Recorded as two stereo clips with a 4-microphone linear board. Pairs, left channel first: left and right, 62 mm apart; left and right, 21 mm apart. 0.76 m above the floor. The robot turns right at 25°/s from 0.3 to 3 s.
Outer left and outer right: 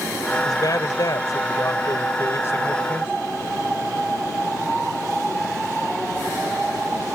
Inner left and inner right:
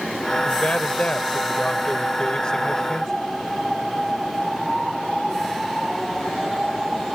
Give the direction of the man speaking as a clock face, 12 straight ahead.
9 o'clock.